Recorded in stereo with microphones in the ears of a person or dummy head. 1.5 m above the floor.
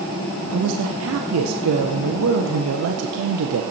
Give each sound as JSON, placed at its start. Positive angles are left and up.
{"t": 0.5, "sound": "a man speaking", "side_deg": -85, "distance_m": 1.1}